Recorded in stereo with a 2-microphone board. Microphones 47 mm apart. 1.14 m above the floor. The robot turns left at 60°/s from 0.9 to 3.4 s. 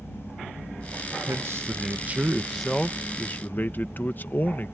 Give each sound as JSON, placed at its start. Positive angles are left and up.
{"t": 1.3, "sound": "a man speaking", "azimuth_deg": -100}